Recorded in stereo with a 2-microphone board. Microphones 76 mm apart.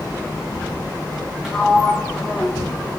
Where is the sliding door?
5° right (ahead or behind), 5.5 m.